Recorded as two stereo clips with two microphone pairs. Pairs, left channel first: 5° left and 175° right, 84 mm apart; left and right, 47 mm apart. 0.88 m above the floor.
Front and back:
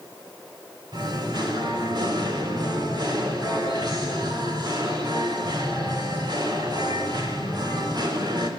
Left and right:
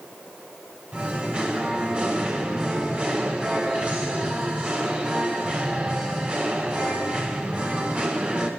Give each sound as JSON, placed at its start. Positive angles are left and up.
{"t": 0.9, "sound": "singing", "azimuth_deg": -150, "distance_m": 5.0}